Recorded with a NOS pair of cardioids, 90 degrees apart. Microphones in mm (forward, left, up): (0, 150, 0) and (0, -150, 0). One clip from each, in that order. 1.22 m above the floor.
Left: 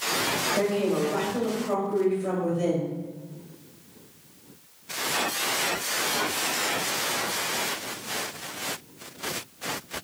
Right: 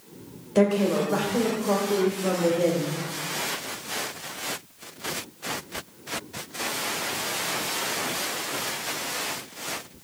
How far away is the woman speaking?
About 1.5 m.